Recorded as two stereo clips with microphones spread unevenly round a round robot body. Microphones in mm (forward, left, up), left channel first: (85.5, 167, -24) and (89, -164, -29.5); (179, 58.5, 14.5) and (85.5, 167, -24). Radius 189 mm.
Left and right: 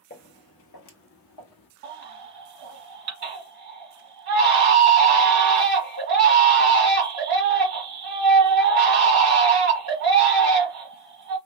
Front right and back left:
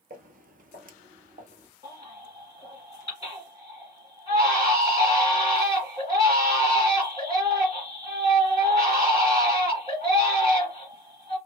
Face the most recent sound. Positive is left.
turn(degrees=-150)